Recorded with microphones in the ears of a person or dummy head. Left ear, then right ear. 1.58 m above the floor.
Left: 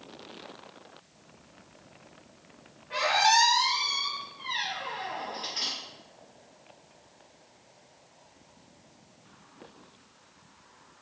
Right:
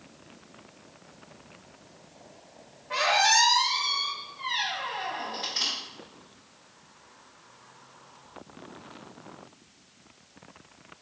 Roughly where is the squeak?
Centre.